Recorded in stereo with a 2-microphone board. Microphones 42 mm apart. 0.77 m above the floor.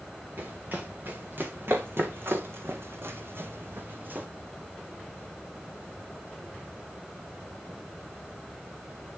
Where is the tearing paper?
I don't hear tearing paper.